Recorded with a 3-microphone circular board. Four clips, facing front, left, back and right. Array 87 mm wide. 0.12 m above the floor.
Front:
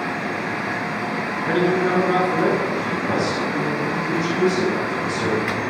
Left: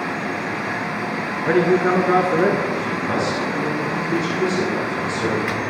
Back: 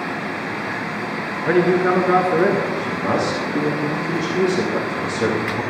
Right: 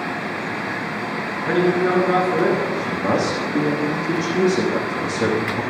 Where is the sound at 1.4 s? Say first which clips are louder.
Left 2 dB, back 4 dB; 150° left, 1.5 m.